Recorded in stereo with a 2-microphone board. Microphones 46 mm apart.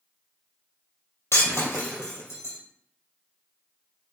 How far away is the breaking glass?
About 2.5 m.